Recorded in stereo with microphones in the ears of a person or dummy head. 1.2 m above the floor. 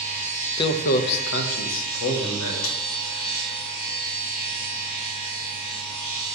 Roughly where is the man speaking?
Left.